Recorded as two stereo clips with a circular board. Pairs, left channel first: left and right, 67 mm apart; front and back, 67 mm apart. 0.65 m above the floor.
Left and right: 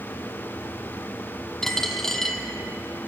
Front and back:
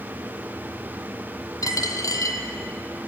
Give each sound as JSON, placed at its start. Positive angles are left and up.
{"t": 1.6, "sound": "a dropped coin", "azimuth_deg": 10, "distance_m": 1.2}